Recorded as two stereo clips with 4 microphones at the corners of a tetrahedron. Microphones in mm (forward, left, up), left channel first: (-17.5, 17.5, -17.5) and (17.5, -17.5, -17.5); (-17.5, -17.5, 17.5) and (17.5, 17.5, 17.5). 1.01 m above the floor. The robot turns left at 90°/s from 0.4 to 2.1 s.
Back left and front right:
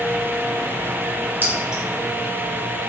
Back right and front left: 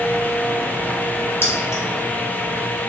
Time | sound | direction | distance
1.4 | keys jangling | 95° right | 0.7 m